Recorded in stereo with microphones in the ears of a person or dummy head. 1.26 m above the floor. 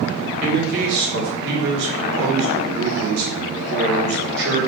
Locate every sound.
0.4 s a man speaking: 60° right (ahead or behind), 1.4 m